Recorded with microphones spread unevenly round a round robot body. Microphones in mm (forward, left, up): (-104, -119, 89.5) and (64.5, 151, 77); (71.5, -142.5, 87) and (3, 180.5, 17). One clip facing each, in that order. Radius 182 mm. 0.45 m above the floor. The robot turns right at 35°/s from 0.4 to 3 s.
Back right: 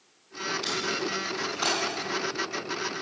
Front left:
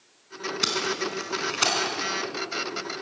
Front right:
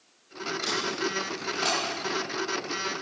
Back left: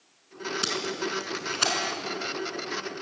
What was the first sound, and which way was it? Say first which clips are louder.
Tape being pulled: front left 2 dB, front right 1 dB; 70° left.